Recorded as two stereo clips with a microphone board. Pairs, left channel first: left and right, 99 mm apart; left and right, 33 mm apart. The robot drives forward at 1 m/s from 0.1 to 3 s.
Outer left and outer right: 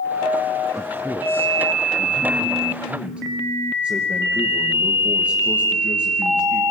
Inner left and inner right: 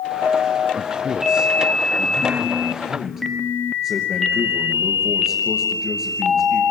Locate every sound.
0.8 s a man speaking: 30° right (ahead or behind), 1.0 m; by 6.6 s 10° right (ahead or behind), 2.5 m